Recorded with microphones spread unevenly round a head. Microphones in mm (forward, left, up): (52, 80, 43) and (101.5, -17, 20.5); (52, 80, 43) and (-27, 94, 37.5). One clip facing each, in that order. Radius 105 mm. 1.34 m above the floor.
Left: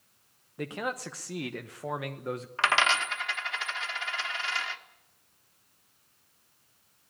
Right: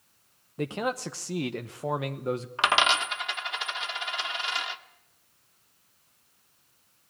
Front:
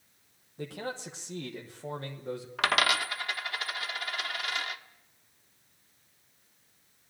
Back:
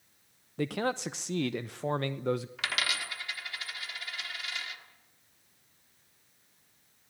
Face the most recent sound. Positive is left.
turn(degrees=10)